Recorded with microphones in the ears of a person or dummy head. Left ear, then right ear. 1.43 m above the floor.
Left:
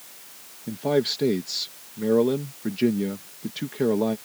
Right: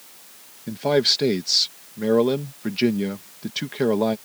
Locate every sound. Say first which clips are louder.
0.7 s a man speaking: right 4 dB; 35° right (ahead or behind)